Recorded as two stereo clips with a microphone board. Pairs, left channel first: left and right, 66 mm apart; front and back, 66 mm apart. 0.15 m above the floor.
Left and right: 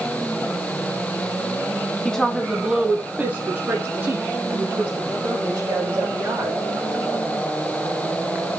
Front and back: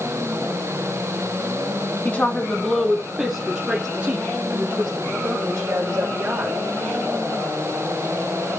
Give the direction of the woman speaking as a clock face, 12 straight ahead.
11 o'clock.